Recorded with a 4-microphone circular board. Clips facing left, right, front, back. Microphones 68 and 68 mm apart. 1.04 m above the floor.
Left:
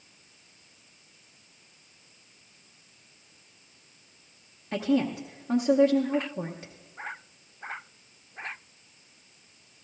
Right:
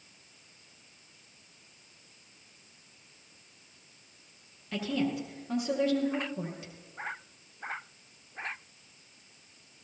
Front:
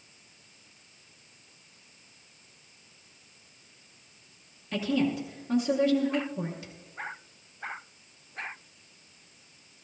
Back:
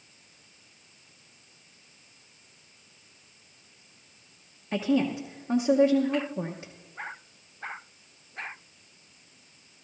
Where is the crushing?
I don't hear crushing.